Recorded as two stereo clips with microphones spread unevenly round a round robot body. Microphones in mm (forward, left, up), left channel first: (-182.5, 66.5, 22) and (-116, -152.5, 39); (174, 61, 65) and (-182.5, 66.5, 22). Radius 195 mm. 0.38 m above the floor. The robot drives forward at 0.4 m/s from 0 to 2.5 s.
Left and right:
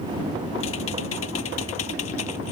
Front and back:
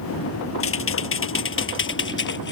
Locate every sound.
0.6 s typing on a keyboard: 50° left; by 2.5 s 60° left